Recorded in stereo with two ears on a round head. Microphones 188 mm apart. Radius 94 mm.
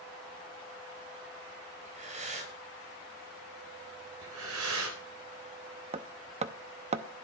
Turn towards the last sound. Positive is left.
turn(degrees=-30)  # may be behind; listen again after turning